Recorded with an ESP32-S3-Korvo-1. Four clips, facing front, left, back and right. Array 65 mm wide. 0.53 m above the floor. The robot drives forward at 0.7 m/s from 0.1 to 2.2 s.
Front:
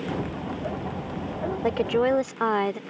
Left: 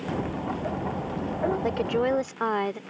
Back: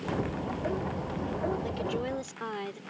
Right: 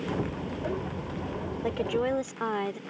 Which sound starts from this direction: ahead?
A woman speaking, at 1.6 s.